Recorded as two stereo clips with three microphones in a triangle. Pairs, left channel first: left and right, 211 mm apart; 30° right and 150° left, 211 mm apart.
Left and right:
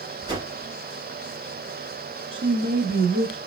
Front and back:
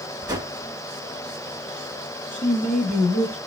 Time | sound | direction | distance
0.3 | a whoosh | 150° right | 0.9 m
2.3 | a woman speaking | 95° right | 1.3 m